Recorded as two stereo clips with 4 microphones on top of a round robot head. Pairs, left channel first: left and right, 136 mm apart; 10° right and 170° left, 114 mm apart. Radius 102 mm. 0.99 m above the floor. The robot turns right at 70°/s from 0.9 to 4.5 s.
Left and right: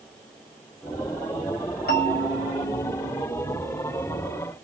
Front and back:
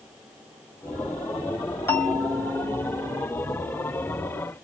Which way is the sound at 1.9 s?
60° left.